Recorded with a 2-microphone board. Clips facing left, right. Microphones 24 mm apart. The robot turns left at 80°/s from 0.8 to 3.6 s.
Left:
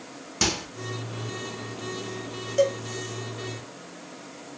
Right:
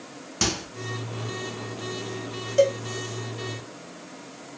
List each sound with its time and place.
0.4 s a microwave: centre (ahead or behind), 0.9 m
2.6 s a cowbell: 10° right (ahead or behind), 0.8 m; by 2.8 s 5° left (ahead or behind), 0.8 m